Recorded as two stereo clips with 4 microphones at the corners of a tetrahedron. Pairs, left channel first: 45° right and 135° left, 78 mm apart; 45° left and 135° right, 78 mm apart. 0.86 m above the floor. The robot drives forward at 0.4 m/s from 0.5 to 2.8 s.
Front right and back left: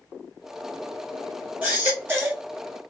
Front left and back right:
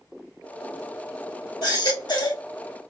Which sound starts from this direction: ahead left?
A baby crying, at 1.6 s.